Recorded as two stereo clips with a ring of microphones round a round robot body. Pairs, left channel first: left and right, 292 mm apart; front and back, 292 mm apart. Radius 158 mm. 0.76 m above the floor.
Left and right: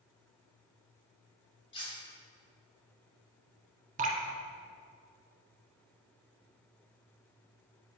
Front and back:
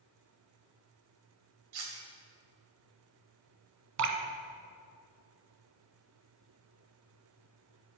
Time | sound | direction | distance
1.7 | cutlery clinking | 165° left | 2.5 m
4.0 | dripping | 155° right | 1.4 m